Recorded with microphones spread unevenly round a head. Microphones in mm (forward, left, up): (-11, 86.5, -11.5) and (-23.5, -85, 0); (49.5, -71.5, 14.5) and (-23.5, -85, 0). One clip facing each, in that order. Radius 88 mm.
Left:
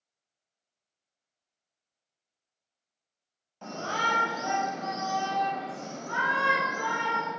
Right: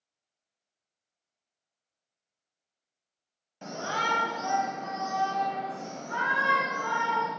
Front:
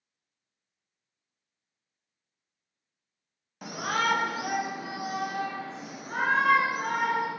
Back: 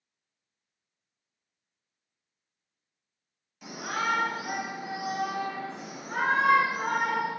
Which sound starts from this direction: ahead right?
A shout, at 3.6 s.